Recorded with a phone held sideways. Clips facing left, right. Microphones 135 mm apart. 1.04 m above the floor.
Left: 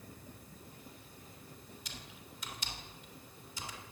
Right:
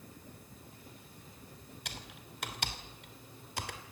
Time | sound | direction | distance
1.9 | typing on a keyboard | 65° right (ahead or behind) | 2.5 m